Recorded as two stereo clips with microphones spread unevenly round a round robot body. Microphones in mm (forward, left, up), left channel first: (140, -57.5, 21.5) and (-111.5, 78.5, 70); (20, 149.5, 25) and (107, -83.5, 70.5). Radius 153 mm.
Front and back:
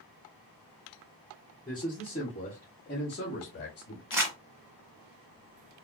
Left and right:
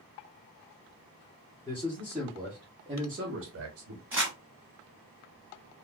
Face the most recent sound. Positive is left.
turn(degrees=-140)